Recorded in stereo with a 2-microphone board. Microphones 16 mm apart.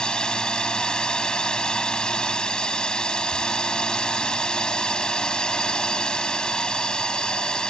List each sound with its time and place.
0.0 s a drone: 55° left (ahead or behind)